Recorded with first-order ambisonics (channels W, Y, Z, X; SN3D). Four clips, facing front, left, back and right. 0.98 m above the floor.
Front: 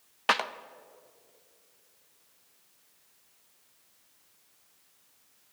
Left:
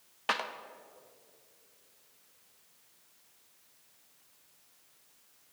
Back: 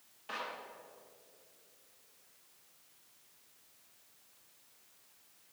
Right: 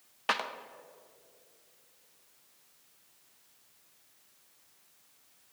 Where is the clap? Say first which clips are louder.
Right 1 dB, front 14 dB; 5° right, 0.7 m.